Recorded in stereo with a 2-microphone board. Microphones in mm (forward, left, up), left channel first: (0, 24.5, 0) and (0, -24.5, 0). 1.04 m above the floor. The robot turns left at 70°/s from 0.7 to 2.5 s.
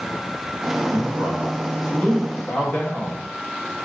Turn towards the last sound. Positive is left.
turn(degrees=140)